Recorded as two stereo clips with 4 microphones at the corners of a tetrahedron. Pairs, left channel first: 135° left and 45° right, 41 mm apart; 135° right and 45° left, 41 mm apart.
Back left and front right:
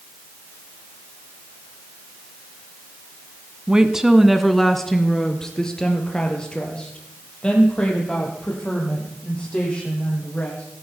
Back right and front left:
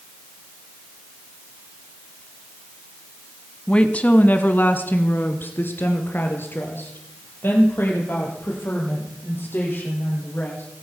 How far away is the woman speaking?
About 1.2 m.